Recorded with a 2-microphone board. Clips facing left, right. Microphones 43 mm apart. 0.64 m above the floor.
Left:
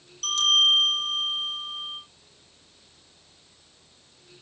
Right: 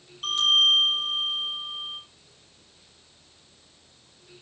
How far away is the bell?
About 6 m.